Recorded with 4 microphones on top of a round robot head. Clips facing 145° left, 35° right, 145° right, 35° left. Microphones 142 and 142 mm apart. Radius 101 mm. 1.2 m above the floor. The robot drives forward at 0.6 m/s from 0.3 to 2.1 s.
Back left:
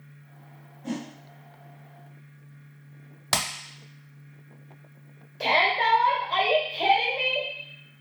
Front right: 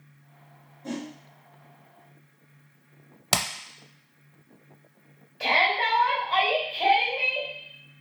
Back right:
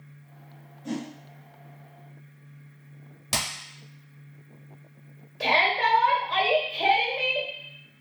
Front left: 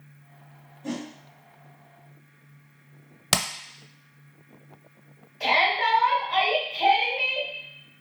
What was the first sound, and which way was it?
A whoosh, 60° left.